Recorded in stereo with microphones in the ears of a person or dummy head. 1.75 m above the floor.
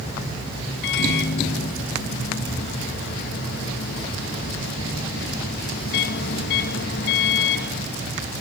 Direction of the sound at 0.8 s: 60° left (ahead or behind).